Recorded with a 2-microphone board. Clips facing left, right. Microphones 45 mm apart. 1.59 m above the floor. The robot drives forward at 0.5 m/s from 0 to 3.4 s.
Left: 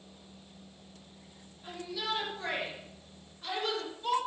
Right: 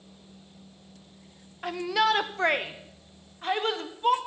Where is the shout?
85° right, 0.9 m; by 4.2 s 45° right (ahead or behind), 1.2 m.